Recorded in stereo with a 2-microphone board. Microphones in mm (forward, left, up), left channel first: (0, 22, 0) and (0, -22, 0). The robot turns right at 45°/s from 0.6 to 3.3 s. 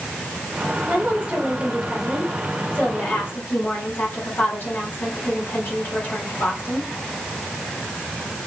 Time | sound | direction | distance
0.9 | a woman speaking | 65° right | 3.5 m